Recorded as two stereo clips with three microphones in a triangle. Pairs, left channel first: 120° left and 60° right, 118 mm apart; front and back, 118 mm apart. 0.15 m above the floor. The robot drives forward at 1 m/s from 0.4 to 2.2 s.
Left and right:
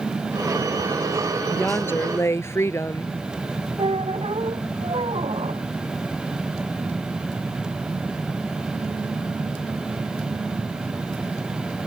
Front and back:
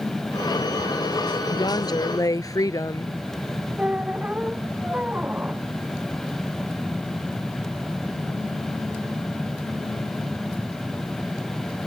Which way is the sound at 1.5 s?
45° left.